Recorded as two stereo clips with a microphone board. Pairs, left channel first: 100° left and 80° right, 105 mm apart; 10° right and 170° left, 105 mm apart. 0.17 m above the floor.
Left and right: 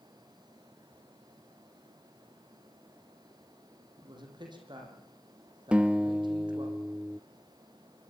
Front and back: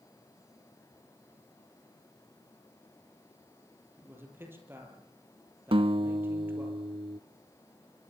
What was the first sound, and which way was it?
A man speaking, 120° right.